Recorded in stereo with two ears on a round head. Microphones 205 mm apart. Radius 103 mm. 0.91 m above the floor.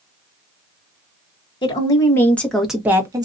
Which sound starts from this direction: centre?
A woman speaking, at 1.6 s.